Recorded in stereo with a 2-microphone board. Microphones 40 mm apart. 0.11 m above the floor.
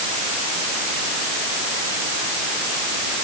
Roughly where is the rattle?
I don't hear a rattle.